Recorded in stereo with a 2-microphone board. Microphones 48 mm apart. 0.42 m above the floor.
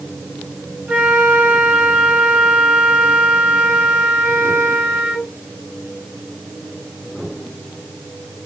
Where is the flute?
20° right (ahead or behind), 0.9 m.